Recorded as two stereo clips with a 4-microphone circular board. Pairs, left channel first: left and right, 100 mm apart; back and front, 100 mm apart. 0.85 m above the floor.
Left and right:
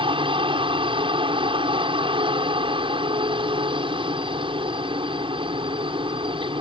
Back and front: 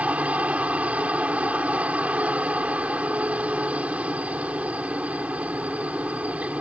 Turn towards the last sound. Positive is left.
turn(degrees=-75)